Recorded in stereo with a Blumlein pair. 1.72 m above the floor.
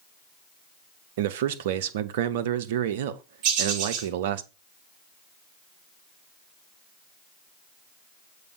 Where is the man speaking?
55° right, 0.6 m.